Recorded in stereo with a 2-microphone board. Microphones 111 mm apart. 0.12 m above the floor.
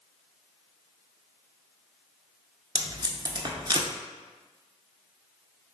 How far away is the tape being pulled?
About 0.7 m.